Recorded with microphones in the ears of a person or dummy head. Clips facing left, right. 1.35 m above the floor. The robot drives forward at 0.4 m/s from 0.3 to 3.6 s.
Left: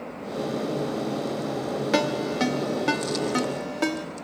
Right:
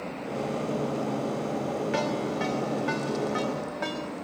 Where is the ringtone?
60° left (ahead or behind), 1.2 m; by 4.0 s 45° left (ahead or behind), 1.5 m.